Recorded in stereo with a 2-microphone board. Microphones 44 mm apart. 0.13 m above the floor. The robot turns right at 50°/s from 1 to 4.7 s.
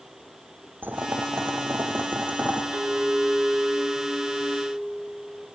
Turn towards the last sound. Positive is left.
turn(degrees=10)